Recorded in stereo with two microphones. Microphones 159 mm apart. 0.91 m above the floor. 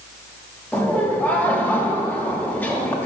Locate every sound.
0.7 s laughter: 10° left (ahead or behind), 1.2 m